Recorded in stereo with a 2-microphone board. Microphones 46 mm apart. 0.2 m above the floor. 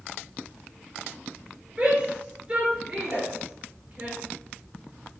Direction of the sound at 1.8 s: 15° right (ahead or behind).